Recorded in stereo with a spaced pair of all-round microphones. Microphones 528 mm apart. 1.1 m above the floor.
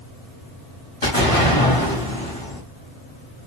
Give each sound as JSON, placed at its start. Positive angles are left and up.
{"t": 1.0, "sound": "an explosion", "side_deg": 70, "distance_m": 1.6}